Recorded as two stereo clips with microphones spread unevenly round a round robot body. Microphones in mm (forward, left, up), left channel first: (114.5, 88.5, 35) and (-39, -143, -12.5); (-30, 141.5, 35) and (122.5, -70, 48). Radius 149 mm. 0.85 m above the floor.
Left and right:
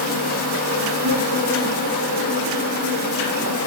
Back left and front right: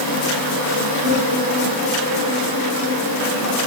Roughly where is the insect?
Right.